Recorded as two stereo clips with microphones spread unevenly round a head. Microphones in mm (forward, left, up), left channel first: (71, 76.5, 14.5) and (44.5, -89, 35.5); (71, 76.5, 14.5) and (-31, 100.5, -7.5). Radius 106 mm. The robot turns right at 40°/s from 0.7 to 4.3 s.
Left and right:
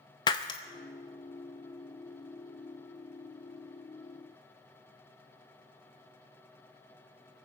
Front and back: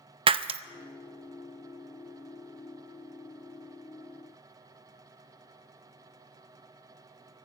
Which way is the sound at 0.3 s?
150° left.